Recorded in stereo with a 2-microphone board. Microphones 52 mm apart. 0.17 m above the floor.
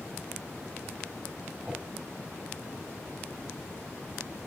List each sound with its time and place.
1.6 s a whoosh: 15° right (ahead or behind), 1.9 m